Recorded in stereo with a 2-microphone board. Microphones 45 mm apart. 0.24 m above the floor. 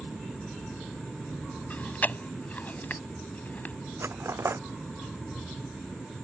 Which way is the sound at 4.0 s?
75° right (ahead or behind).